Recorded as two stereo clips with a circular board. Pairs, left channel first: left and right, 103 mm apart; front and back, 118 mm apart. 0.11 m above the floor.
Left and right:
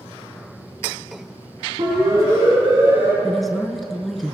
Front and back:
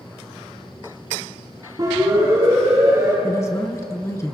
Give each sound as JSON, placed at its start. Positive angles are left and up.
{"t": 1.8, "sound": "a siren", "azimuth_deg": -130, "distance_m": 6.0}
{"t": 3.2, "sound": "a woman speaking", "azimuth_deg": 5, "distance_m": 1.2}